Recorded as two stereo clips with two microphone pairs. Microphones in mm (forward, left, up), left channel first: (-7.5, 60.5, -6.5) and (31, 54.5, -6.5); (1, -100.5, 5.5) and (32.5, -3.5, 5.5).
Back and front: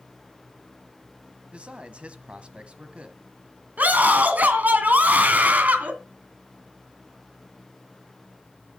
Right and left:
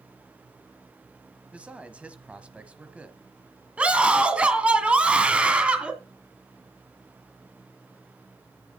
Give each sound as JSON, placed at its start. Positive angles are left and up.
{"t": 1.5, "sound": "a man speaking", "azimuth_deg": 0, "distance_m": 1.1}
{"t": 3.8, "sound": "a scream", "azimuth_deg": -5, "distance_m": 1.8}